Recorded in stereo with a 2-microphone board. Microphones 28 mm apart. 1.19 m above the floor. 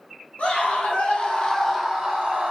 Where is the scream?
65° left (ahead or behind), 1.1 m; by 2.5 s 45° right (ahead or behind), 0.7 m.